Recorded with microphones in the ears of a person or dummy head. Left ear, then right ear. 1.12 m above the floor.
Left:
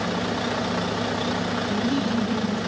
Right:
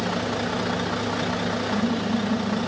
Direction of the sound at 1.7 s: 85° left.